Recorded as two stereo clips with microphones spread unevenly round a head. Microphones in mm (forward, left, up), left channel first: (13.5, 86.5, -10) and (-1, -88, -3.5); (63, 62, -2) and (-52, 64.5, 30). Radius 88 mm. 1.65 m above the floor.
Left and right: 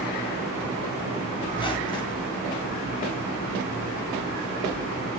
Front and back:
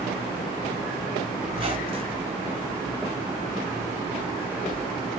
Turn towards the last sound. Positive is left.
turn(degrees=150)